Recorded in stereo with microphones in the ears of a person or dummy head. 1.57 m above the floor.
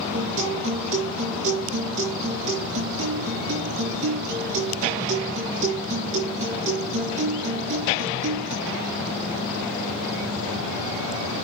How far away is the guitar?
About 4.5 m.